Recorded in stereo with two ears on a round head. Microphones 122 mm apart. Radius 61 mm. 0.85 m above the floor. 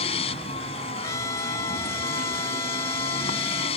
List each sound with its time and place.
0.0 s a vehicle: 45° left (ahead or behind)
1.0 s a trumpet: 25° left (ahead or behind)